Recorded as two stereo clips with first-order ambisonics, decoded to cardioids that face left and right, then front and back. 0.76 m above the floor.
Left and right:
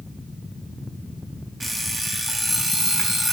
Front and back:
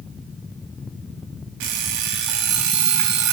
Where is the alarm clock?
165° right, 4.5 m.